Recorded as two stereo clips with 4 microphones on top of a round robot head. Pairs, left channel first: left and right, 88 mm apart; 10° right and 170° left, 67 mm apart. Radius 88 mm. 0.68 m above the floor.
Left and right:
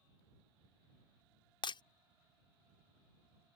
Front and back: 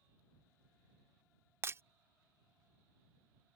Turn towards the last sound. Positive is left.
turn(degrees=120)